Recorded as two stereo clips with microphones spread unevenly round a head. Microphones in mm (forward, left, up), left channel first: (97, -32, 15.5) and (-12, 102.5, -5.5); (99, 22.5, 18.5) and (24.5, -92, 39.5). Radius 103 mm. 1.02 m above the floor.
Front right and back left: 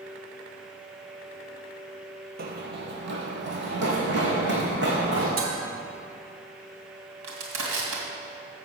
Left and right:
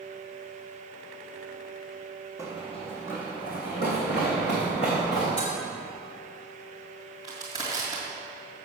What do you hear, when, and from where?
2.4 s running footsteps: 135° left, 1.3 m; by 5.3 s 105° left, 4 m
5.4 s dishes clattering: 125° left, 2 m
7.2 s crushing: 130° left, 2.5 m